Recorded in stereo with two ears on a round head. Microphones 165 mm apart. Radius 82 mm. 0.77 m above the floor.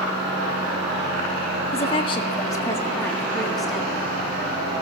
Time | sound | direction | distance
1.7 | a woman speaking | 35° left (ahead or behind) | 1.4 m